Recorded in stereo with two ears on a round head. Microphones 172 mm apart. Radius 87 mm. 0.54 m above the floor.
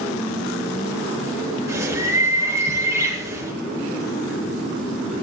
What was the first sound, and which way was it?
A bird, 15° right (ahead or behind).